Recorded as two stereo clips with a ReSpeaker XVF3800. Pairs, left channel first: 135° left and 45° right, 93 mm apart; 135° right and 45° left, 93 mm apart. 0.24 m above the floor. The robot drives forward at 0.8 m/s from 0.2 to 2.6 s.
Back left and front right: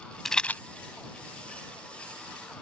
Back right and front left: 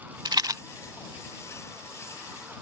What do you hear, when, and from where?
0.2 s a rattle: 50° left; by 0.6 s 80° left